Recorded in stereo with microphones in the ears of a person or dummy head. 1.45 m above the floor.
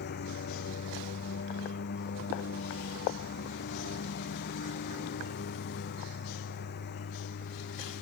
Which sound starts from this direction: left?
A lawn mower, at 0.0 s.